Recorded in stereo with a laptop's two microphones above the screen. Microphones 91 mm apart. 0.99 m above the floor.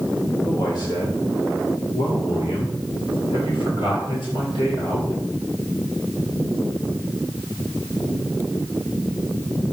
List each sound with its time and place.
0.5 s a man speaking: 45° left (ahead or behind), 1.2 m; by 5.2 s 80° left, 3.5 m